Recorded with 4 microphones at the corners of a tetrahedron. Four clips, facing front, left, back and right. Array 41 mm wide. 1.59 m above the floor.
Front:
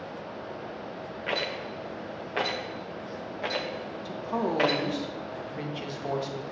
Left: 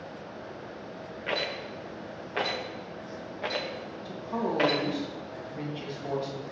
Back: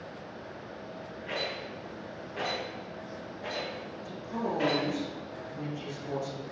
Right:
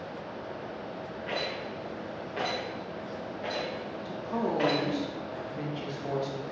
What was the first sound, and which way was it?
A rattle, 35° left.